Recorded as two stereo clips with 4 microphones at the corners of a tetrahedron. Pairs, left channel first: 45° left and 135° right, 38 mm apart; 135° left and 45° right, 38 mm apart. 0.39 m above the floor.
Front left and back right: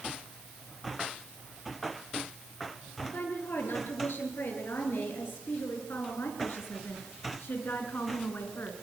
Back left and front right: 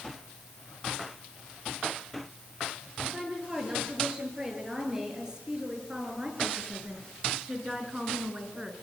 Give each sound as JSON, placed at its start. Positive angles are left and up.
{"t": 3.0, "sound": "a woman speaking", "azimuth_deg": 25, "distance_m": 8.0}